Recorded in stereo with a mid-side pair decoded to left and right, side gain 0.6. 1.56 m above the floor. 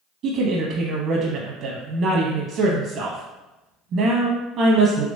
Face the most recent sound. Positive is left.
turn(degrees=-55)